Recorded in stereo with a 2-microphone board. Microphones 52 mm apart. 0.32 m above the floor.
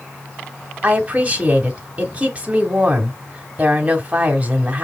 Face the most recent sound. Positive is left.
turn(degrees=-25)  # may be behind; listen again after turning